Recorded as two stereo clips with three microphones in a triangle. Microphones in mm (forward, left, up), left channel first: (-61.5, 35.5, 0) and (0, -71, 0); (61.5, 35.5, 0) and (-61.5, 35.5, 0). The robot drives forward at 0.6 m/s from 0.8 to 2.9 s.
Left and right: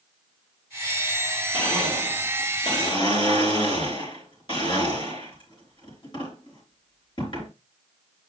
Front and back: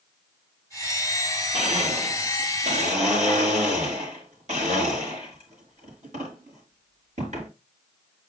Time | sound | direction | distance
1.5 | a blender | 165° left | 3.5 m